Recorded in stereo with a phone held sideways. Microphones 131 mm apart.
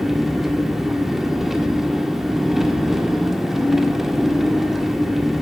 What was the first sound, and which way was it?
An engine running, 5° right (ahead or behind).